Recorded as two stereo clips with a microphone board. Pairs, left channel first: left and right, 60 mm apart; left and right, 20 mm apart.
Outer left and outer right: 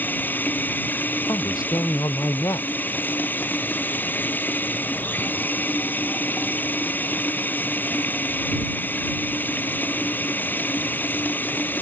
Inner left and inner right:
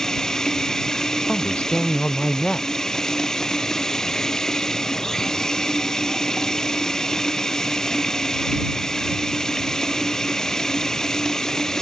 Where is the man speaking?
80° left.